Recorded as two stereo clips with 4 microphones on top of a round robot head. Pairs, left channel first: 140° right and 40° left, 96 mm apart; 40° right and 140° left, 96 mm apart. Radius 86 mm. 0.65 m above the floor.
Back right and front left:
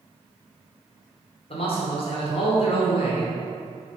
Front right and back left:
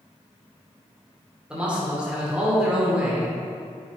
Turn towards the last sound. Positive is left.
turn(degrees=-140)